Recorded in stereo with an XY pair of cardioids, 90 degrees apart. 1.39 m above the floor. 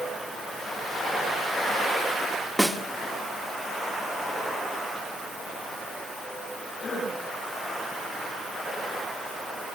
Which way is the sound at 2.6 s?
5° right.